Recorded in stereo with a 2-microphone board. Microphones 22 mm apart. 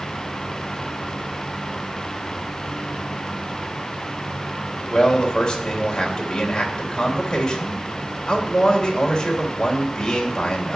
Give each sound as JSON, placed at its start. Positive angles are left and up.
{"t": 4.9, "sound": "a man speaking", "side_deg": 30, "distance_m": 3.5}